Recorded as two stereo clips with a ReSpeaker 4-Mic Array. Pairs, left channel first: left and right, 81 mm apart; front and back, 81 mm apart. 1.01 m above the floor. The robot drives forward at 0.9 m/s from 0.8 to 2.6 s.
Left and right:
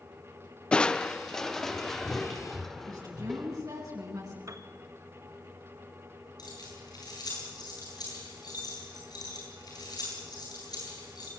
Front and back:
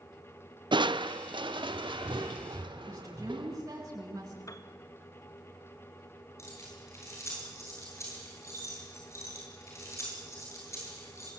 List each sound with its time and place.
0.7 s crushing: 170° left, 0.6 m; by 3.6 s 175° left, 2 m
2.9 s a woman speaking: 135° right, 7.5 m
4.5 s a piano: 45° right, 1.4 m
6.4 s keys jangling: 55° left, 10 m